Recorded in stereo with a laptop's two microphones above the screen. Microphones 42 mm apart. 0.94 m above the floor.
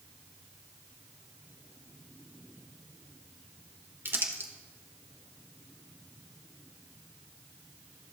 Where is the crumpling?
60° right (ahead or behind), 1.2 m.